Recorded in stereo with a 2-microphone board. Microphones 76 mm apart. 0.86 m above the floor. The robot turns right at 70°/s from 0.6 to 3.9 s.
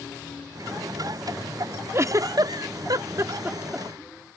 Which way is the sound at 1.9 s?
35° right (ahead or behind).